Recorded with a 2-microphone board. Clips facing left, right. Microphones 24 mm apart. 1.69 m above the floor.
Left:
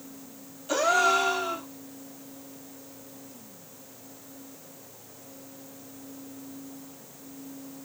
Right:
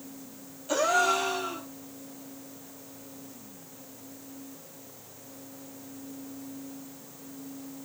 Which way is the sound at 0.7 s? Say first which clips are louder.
Left 2 dB; 5° left (ahead or behind).